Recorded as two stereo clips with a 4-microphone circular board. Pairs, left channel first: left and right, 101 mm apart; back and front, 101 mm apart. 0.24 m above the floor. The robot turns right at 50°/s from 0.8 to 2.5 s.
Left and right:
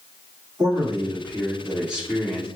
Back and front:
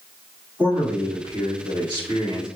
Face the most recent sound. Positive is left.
turn(degrees=20)